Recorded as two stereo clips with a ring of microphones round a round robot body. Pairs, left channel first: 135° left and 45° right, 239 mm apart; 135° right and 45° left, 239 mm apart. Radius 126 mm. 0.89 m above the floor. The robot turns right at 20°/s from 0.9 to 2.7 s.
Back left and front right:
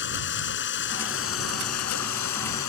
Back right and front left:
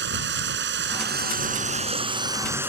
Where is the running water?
90° left; by 2.7 s 125° left.